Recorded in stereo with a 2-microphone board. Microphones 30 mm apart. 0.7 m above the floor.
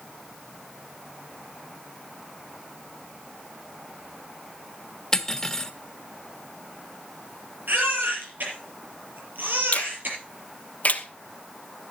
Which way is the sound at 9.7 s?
55° left (ahead or behind).